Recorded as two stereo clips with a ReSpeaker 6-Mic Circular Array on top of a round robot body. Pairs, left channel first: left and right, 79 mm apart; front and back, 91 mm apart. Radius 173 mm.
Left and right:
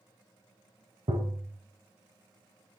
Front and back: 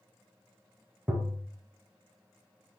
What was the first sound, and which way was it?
Tapping, 105° right.